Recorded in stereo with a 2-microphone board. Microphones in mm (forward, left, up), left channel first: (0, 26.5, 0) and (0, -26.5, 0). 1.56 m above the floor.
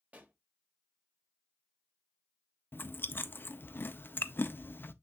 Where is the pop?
30° right (ahead or behind), 1.5 m.